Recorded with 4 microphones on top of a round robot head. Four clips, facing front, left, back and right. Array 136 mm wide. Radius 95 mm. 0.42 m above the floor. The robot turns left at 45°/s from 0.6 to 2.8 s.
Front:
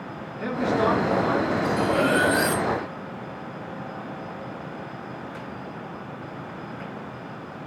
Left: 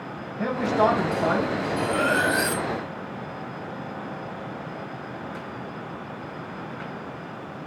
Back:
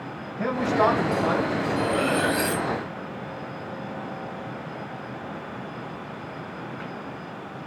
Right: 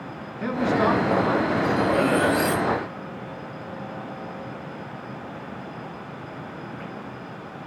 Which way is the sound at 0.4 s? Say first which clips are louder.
Even, back 1 dB; 135° left.